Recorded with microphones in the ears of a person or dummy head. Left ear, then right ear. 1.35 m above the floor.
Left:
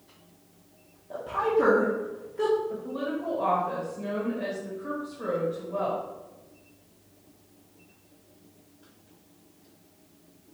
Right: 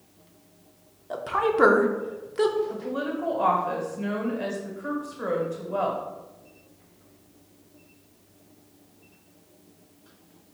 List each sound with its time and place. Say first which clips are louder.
1.1 s a woman speaking: right 1 dB; 50° right (ahead or behind), 0.8 m
2.7 s a woman speaking: right 2 dB; 45° right (ahead or behind), 1.4 m